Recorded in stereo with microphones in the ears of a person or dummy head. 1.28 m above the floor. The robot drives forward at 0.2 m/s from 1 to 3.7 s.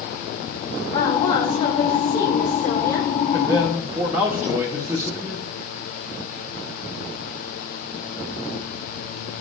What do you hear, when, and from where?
0.9 s a woman speaking: 25° left (ahead or behind), 1.9 m; by 3.1 s 20° left (ahead or behind), 2.5 m
3.3 s a man speaking: 15° right (ahead or behind), 0.8 m